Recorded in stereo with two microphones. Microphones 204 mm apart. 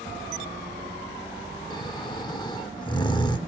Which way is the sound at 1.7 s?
20° left (ahead or behind).